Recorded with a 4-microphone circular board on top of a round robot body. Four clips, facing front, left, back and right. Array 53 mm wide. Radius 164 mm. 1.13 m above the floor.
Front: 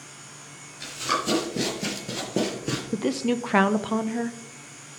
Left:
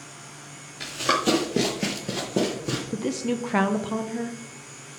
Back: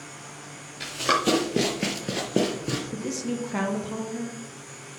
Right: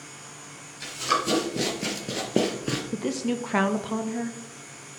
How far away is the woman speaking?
About 0.7 m.